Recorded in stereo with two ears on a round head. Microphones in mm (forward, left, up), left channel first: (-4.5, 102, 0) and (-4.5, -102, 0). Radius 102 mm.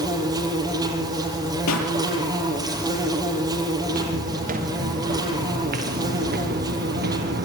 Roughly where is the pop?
Left.